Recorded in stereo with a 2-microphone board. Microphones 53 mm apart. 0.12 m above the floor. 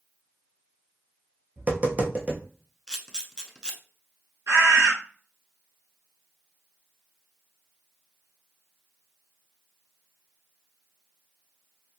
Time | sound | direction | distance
1.6 | tapping | 30° right (ahead or behind) | 0.8 m
2.9 | a camera shutter | 10° left (ahead or behind) | 0.6 m
4.5 | a bird | 55° right (ahead or behind) | 1.5 m